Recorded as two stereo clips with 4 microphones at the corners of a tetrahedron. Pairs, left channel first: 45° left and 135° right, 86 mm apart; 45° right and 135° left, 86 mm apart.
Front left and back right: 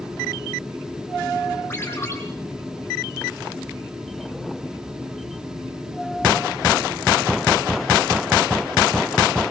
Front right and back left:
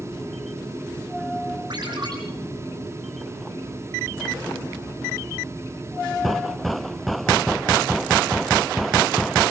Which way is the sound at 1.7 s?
105° left.